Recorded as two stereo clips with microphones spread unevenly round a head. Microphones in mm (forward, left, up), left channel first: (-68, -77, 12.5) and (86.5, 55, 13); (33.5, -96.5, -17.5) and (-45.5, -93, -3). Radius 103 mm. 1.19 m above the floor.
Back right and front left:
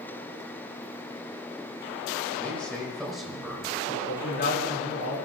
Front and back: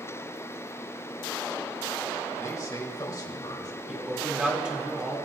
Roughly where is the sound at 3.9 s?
Right.